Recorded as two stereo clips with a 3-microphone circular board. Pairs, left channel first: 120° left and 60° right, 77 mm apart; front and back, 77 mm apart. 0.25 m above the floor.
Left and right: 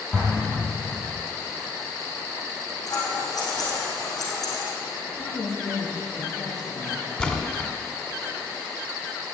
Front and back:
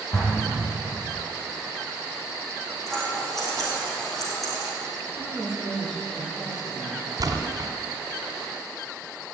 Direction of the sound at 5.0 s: 90° left.